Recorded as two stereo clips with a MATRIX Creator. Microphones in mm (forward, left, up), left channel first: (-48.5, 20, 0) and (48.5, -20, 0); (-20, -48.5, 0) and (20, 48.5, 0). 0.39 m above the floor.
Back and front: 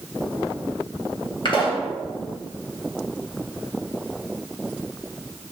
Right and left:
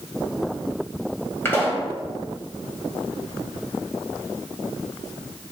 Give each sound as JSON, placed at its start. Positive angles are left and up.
{"t": 1.4, "sound": "a pop", "azimuth_deg": -175, "distance_m": 2.5}